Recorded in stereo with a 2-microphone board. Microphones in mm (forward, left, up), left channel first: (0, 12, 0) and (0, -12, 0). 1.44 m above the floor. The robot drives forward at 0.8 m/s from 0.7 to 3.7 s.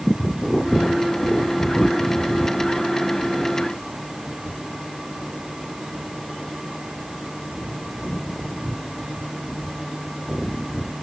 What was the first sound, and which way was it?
Only background noise.